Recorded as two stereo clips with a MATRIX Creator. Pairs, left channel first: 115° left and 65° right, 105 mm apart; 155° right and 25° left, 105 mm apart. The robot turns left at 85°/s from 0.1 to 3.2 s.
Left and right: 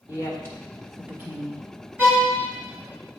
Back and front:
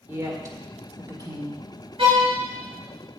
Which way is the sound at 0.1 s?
85° left.